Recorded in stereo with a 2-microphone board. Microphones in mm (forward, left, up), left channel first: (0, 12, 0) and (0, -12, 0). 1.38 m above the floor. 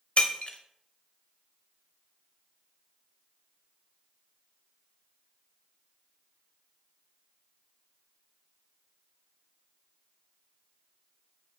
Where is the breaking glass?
50° left (ahead or behind), 0.8 m.